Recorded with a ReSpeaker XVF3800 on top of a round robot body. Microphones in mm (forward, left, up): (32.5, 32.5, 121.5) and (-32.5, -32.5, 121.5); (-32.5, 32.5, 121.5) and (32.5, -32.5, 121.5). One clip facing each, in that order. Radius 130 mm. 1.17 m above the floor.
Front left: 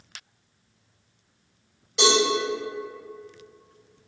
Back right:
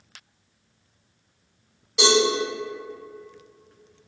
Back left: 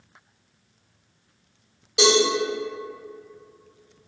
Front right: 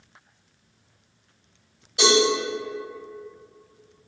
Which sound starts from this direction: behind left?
A cowbell, at 2.0 s.